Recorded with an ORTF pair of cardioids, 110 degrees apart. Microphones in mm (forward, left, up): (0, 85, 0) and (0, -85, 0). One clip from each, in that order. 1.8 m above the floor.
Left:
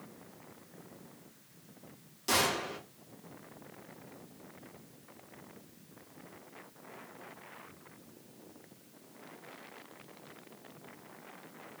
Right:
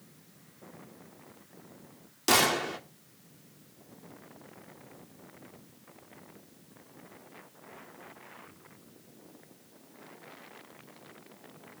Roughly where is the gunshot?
Ahead right.